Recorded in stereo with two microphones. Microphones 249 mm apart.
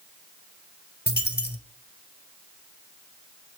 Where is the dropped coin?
40° left (ahead or behind), 1.7 m.